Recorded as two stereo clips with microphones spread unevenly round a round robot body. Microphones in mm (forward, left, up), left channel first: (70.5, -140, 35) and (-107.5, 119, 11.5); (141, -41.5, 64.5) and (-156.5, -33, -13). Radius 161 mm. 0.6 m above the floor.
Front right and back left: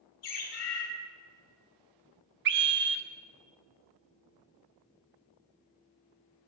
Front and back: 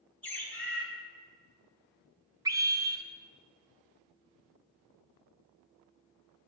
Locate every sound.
0.2 s a bird: 90° right, 2 m
2.5 s a scream: 125° left, 0.8 m